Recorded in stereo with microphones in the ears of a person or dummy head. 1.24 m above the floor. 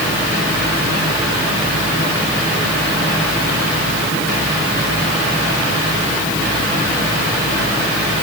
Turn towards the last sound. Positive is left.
No sound to turn to.